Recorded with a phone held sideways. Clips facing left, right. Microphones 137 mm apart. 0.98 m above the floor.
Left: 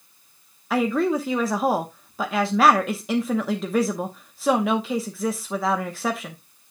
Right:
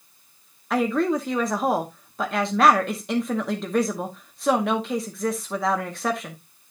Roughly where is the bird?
No bird in this recording.